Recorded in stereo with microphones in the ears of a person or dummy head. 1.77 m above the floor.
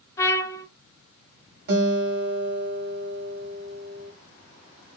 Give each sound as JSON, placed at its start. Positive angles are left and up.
{"t": 0.2, "sound": "a trumpet", "side_deg": 20, "distance_m": 0.5}
{"t": 1.7, "sound": "a guitar", "side_deg": -60, "distance_m": 1.8}